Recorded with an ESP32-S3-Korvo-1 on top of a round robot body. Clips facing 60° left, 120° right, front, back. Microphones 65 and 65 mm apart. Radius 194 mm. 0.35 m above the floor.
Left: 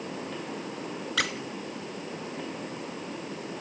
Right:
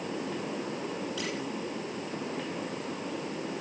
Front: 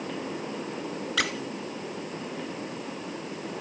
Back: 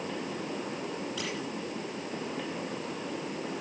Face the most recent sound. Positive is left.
turn(degrees=30)